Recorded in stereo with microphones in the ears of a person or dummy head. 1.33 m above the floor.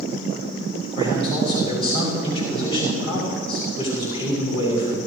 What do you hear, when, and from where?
0.9 s a man speaking: 25° left (ahead or behind), 6.5 m